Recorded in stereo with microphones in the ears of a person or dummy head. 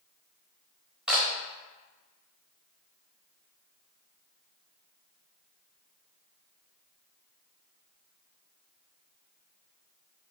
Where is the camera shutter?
Centre (ahead or behind), 0.8 m.